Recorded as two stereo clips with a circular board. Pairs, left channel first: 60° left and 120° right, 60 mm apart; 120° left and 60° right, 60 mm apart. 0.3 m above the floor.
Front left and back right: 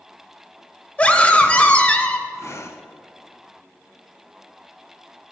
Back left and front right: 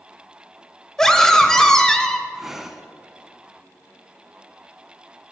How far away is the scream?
About 0.9 m.